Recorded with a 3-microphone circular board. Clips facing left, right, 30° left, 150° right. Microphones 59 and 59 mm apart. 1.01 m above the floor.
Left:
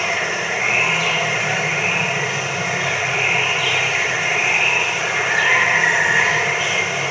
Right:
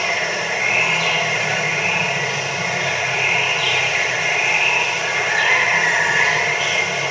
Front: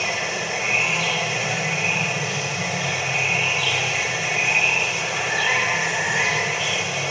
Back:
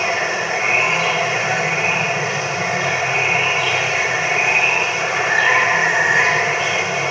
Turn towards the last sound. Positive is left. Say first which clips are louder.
# even, back 6 dB
turn(degrees=165)